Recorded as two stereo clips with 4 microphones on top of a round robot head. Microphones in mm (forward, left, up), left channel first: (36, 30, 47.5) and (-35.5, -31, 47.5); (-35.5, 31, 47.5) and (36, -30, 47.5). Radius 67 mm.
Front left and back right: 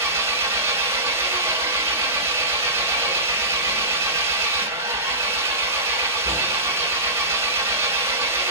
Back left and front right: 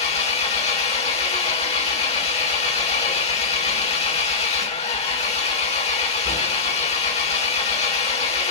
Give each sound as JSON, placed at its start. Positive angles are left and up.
{"t": 0.0, "sound": "an engine running", "azimuth_deg": 155, "distance_m": 2.0}